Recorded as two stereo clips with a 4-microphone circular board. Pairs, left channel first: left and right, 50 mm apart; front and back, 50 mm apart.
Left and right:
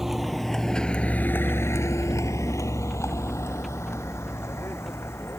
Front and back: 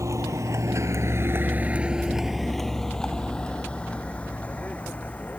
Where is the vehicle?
170° right; by 5.4 s 60° left.